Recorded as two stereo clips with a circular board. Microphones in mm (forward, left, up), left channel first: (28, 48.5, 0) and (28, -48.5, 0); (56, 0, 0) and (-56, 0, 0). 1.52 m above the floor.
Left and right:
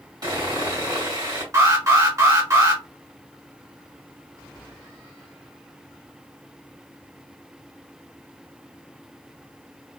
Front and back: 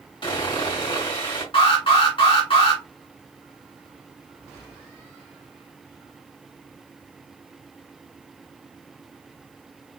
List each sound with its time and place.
0.2 s sawing: 45° right, 2.5 m
1.5 s an alarm: 35° right, 1.9 m